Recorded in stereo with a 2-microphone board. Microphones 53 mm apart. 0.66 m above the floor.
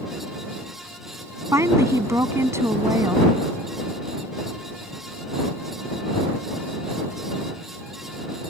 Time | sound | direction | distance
1.5 | a woman speaking | 65° right (ahead or behind) | ?